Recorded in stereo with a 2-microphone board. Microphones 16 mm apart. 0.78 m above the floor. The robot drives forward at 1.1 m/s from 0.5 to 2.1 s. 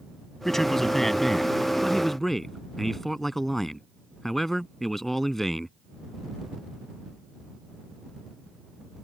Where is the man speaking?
30° left (ahead or behind); by 5.7 s 25° left (ahead or behind).